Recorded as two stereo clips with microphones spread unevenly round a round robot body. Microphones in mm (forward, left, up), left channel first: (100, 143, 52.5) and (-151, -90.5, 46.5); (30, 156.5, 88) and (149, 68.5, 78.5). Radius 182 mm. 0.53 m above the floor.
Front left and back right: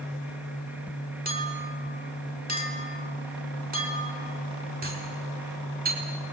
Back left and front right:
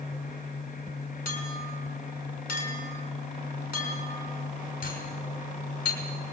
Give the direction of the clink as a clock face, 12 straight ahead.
7 o'clock.